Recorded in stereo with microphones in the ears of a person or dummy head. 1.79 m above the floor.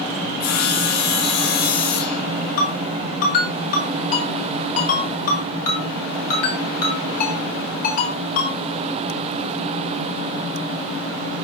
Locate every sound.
0.4 s sawing: 50° left (ahead or behind), 4 m
2.6 s a ringtone: 45° left (ahead or behind), 7 m